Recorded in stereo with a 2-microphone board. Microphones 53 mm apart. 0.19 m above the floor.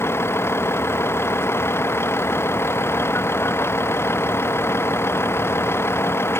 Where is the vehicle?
50° left (ahead or behind).